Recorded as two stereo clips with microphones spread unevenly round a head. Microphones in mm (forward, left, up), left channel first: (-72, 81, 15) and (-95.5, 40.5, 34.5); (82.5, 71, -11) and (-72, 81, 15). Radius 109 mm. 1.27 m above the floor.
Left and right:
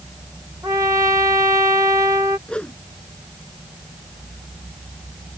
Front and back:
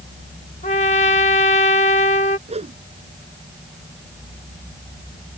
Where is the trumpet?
65° right.